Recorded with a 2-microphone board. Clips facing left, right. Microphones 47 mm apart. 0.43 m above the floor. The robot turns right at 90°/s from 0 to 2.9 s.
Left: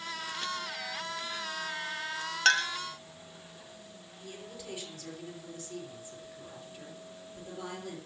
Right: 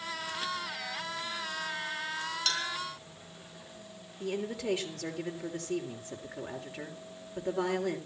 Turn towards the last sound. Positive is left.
turn(degrees=-80)